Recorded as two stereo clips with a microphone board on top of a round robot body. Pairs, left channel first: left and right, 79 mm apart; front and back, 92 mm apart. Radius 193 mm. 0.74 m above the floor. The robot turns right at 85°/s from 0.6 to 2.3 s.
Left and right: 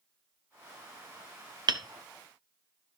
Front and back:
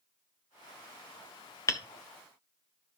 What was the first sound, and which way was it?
Hammering, 60° right.